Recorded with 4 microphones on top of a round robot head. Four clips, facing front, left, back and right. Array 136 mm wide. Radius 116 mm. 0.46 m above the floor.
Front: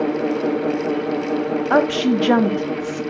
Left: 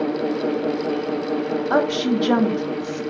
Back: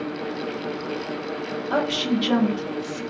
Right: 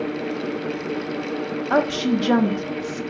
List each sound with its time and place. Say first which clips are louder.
1.7 s a woman speaking: right 1 dB, front 6 dB; 10° left, 1.0 m